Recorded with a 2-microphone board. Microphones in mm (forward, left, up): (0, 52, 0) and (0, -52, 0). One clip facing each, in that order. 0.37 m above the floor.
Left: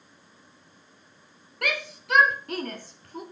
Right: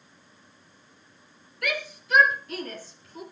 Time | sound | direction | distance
1.6 | a shout | 75° left (ahead or behind) | 4.5 m